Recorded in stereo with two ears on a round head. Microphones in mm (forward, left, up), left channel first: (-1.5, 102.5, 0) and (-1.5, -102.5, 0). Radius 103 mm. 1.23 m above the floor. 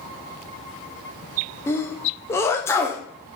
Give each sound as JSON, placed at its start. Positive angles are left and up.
{"t": 1.7, "sound": "a sneeze", "side_deg": 10, "distance_m": 0.6}